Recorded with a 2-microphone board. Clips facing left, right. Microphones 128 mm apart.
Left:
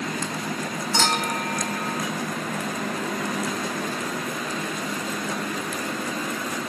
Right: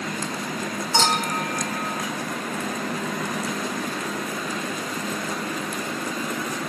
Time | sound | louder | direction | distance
0.9 | a clink | right 2 dB | 30° right (ahead or behind) | 2.5 m